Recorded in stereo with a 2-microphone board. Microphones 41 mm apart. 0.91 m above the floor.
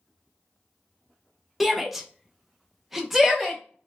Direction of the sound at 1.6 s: 5° right (ahead or behind).